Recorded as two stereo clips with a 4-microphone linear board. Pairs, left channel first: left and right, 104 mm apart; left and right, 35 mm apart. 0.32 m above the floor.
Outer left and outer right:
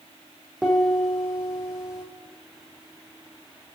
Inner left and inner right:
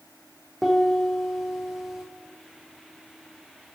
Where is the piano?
5° right (ahead or behind), 2.5 m.